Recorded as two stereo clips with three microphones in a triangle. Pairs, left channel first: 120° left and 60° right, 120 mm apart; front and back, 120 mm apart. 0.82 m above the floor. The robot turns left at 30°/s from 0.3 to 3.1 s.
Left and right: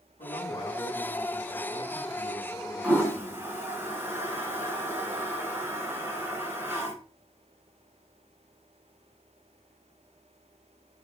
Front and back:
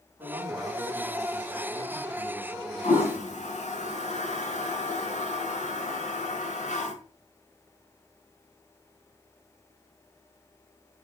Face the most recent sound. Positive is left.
turn(degrees=15)